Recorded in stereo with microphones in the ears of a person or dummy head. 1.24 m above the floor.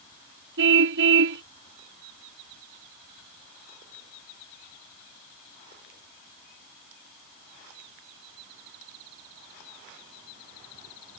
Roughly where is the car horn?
Right.